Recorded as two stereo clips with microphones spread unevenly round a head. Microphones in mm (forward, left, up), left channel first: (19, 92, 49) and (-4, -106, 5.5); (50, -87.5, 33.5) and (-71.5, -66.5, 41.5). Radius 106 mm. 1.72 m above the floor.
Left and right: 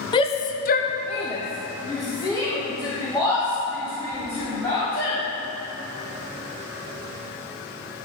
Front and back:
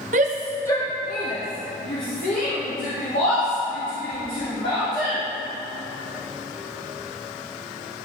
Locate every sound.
0.1 s a shout: 145° left, 0.7 m; by 5.2 s 5° left, 5.5 m